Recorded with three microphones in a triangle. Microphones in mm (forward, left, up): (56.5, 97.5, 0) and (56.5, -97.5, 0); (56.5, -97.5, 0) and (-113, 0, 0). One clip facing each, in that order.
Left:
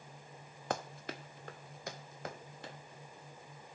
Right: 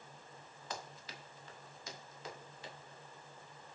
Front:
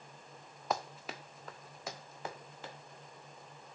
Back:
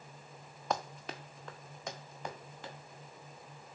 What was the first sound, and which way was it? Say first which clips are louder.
Running footsteps: left 9 dB, back 1 dB; 55° left.